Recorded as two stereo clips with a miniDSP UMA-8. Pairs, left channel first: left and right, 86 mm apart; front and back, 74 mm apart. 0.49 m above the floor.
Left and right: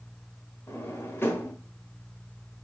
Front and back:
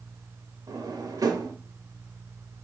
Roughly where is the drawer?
Behind left.